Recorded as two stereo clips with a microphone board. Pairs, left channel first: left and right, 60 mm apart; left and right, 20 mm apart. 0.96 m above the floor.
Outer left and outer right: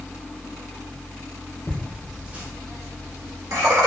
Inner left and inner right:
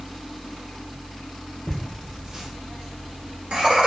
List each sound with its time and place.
1.7 s laughter: 25° left (ahead or behind), 0.6 m; by 3.9 s 65° right (ahead or behind), 1.3 m